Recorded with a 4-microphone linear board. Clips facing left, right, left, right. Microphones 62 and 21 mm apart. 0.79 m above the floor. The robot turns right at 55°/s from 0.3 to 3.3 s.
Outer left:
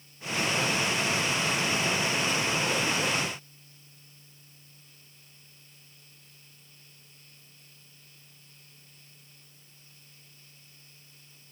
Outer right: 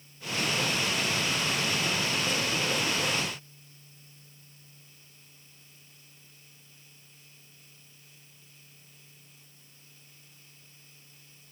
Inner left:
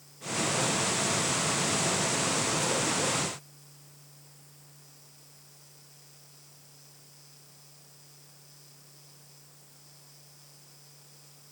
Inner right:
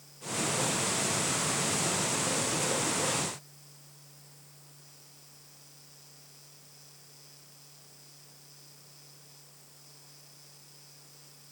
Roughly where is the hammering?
I don't hear hammering.